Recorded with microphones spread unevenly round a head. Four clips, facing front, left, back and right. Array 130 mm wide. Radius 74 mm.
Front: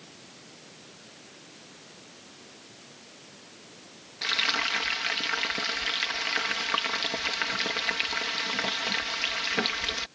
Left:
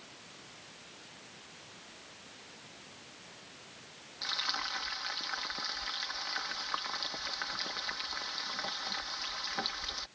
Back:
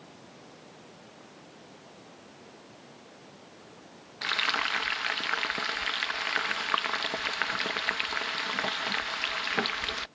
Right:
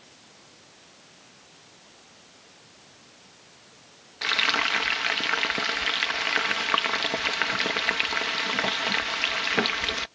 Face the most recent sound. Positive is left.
turn(degrees=-85)